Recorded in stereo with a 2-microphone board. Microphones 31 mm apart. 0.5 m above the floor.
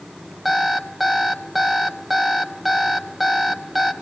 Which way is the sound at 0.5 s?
5° right (ahead or behind).